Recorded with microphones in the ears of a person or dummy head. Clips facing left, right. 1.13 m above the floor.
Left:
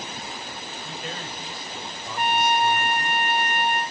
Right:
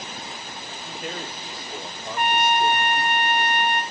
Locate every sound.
0.8 s a man speaking: 45° right (ahead or behind), 4 m
2.2 s a trumpet: 45° right (ahead or behind), 0.6 m